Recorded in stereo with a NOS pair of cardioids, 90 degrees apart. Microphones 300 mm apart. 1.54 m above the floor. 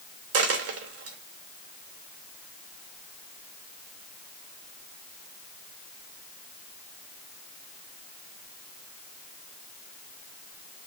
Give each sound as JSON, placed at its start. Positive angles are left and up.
{"t": 0.3, "sound": "a dropped coin", "azimuth_deg": -55, "distance_m": 2.5}